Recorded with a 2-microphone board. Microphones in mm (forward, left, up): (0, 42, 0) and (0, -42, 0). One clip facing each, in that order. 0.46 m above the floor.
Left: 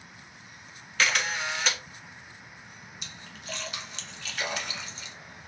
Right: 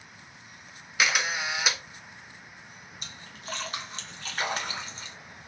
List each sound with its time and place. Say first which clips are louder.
1.0 s a camera shutter: even; 10° right (ahead or behind), 0.9 m
3.0 s a splash: right 1 dB; 40° right (ahead or behind), 1.0 m